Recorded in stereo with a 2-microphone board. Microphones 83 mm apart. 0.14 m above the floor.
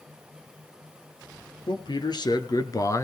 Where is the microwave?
I don't hear a microwave.